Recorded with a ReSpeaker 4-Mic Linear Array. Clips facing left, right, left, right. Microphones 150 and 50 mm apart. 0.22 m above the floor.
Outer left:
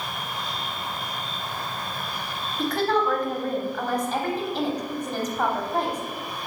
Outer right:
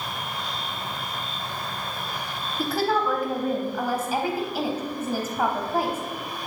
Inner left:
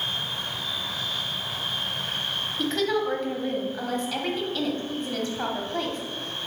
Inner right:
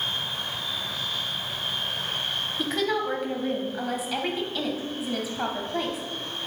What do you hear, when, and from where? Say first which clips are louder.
2.6 s a woman speaking: outer left 1 dB, inner left 2 dB; 10° right (ahead or behind), 1.0 m